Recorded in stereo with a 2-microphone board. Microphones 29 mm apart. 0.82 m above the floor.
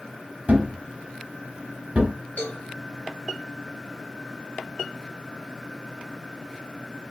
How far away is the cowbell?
About 2 m.